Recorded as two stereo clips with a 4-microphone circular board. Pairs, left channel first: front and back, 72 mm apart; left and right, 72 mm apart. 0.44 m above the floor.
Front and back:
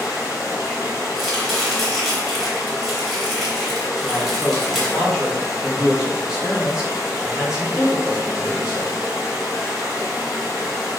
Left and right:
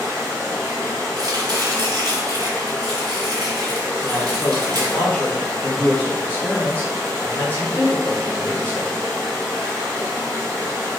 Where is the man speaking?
110° left, 1.0 m.